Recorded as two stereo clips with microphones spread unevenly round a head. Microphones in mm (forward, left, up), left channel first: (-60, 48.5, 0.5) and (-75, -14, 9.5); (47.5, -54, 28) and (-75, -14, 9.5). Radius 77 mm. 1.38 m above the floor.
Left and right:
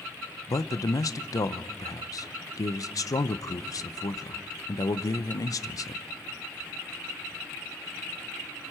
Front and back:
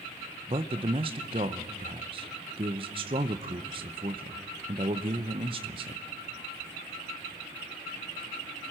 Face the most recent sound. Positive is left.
turn(degrees=105)